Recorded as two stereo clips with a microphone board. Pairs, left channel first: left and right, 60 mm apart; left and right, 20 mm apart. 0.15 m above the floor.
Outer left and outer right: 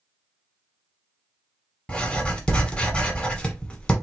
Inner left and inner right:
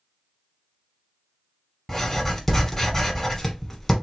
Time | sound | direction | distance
1.9 | writing | 15° left (ahead or behind) | 1.1 m